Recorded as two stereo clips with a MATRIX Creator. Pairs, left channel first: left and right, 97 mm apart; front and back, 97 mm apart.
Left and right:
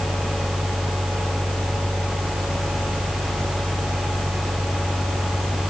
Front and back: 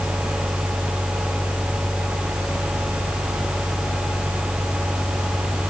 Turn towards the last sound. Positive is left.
No sound to turn to.